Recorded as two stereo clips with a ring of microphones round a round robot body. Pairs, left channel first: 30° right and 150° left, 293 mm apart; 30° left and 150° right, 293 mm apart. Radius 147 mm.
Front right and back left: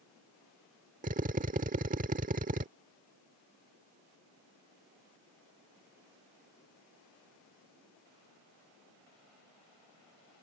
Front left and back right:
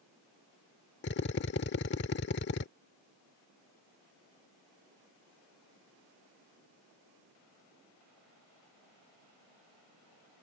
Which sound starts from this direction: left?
A drill, at 1.0 s.